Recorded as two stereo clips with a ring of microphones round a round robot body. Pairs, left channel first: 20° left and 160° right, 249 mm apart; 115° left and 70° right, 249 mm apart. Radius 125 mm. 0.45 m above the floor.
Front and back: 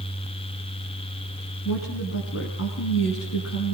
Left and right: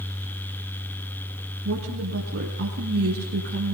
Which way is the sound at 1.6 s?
15° right.